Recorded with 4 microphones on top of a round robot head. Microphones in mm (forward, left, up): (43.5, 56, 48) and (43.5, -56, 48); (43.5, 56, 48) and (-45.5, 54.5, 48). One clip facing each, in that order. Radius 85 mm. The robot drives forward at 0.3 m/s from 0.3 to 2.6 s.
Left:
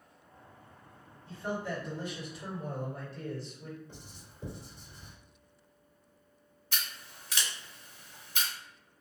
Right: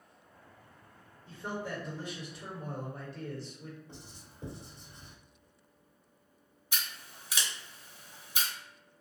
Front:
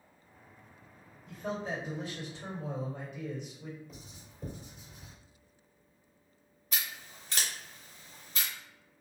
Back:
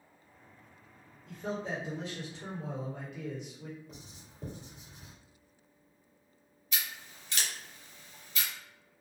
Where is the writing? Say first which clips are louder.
Even, even; 160° right, 1.5 m.